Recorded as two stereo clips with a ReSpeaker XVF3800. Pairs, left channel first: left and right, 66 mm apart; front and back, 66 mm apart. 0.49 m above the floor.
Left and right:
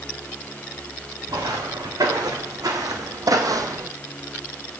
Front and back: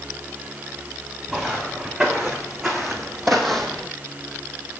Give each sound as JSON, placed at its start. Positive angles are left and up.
{"t": 1.3, "sound": "footsteps", "azimuth_deg": -85, "distance_m": 2.5}